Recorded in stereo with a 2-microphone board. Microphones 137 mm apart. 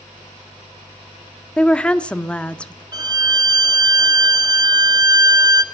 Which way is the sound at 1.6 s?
10° left (ahead or behind).